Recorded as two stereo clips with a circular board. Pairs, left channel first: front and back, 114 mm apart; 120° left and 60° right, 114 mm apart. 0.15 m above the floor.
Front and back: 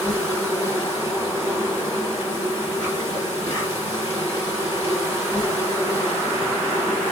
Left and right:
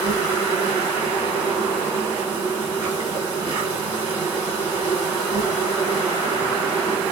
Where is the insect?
125° right, 3 m.